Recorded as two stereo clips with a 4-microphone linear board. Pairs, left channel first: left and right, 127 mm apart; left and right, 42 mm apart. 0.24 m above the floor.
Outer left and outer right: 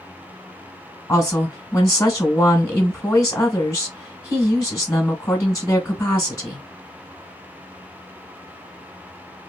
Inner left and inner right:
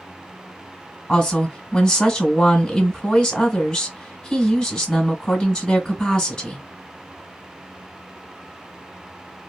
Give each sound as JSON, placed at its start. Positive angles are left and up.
{"t": 1.1, "sound": "a woman speaking", "side_deg": 25, "distance_m": 1.2}